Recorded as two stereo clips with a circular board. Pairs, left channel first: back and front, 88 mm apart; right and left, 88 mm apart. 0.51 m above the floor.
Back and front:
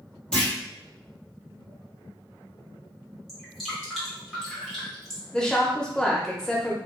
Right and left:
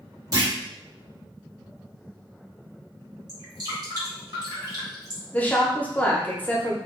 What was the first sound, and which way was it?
A clunk, 100° left.